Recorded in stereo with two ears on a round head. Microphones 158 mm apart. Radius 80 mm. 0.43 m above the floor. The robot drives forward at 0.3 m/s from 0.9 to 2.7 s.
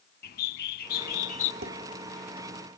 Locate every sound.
0.2 s a bird: 60° left (ahead or behind), 0.5 m; by 1.5 s 50° left (ahead or behind), 0.6 m
1.6 s dishes clattering: 55° right (ahead or behind), 1.2 m